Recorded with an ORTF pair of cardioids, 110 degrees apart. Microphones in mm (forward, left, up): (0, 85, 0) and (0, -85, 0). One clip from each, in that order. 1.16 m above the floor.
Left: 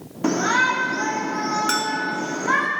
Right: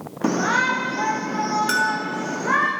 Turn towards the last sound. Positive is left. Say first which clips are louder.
# right 1 dB
turn(degrees=5)